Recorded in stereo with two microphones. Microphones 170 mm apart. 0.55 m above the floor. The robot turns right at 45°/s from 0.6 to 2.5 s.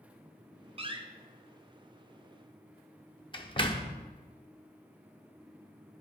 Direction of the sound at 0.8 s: 35° right (ahead or behind).